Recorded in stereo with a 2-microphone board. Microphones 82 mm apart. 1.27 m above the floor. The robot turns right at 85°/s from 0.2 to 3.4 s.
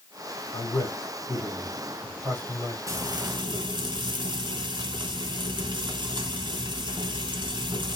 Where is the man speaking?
80° left, 2.5 m; by 2.8 s 90° right, 2.5 m.